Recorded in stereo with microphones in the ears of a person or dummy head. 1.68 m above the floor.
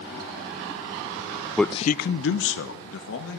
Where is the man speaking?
5° right (ahead or behind), 0.5 m; by 3.4 s 80° left, 2.5 m.